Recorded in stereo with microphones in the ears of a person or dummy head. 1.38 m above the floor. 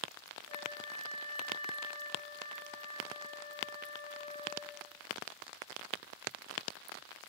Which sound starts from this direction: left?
A flute, at 0.5 s.